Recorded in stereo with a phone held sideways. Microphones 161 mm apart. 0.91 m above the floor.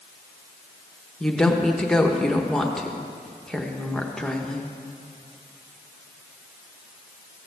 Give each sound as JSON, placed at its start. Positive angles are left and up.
{"t": 1.2, "sound": "a woman speaking", "side_deg": 5, "distance_m": 1.0}